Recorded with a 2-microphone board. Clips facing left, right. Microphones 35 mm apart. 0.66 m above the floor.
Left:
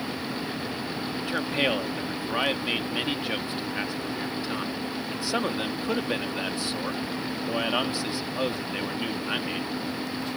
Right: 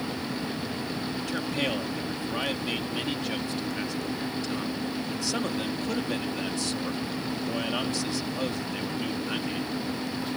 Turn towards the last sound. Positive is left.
turn(degrees=25)  # may be behind; listen again after turning